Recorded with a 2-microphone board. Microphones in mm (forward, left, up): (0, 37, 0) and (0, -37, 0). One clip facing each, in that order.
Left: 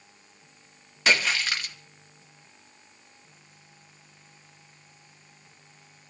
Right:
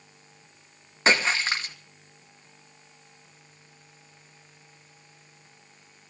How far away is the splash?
About 2 m.